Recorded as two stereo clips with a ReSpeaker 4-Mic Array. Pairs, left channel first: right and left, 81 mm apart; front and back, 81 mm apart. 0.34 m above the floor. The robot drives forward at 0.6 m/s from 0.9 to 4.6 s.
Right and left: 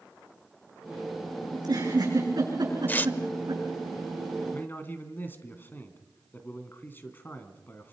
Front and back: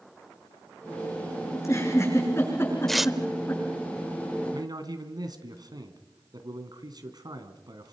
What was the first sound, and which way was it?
A giggle, 55° left.